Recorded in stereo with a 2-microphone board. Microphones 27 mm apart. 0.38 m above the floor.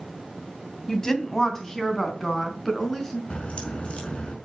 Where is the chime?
No chime in this recording.